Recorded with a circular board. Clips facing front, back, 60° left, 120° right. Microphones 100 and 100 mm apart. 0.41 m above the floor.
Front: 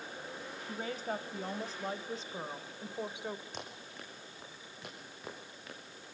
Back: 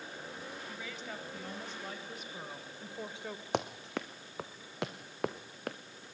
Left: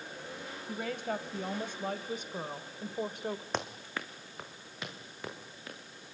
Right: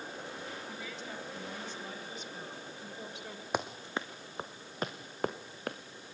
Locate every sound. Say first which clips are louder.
0.7 s a woman speaking: front 6 dB, left 7 dB; 35° left, 2.5 m; by 3.4 s 70° left, 1.7 m
3.5 s running footsteps: back 11 dB, right 2 dB; 160° left, 1.8 m; by 5.8 s 155° right, 3 m